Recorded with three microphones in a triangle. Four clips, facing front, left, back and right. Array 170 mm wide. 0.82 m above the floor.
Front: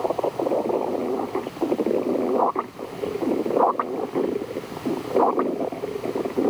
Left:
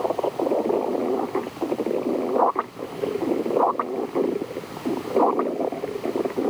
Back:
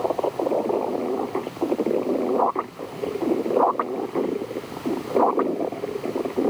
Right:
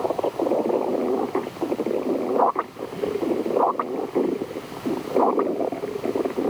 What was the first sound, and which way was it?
Only background noise.